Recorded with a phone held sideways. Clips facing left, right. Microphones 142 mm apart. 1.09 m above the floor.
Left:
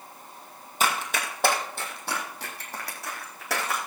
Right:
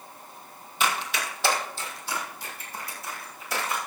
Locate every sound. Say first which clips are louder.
0.8 s running footsteps: left 1 dB; 40° left (ahead or behind), 2.5 m; by 3.8 s 80° left, 4.5 m